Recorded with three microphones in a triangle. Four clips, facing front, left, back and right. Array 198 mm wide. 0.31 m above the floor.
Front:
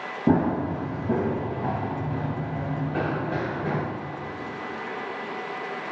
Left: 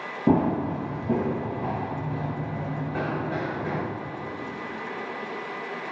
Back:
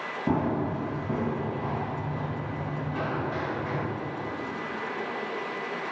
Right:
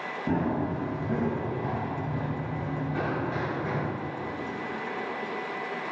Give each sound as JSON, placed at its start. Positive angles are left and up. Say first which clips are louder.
{"t": 0.3, "sound": "running footsteps", "louder": "left 6 dB, front 5 dB", "azimuth_deg": 50, "distance_m": 1.7}